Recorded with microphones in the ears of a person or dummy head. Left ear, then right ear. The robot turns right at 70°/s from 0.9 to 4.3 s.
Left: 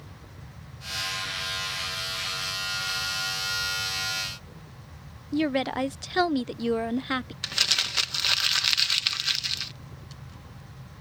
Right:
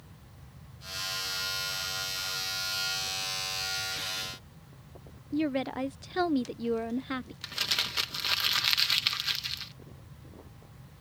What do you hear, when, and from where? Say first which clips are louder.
5.3 s a woman speaking: left 5 dB; 25° left (ahead or behind)
7.4 s crumpling: left 6 dB; 25° left (ahead or behind)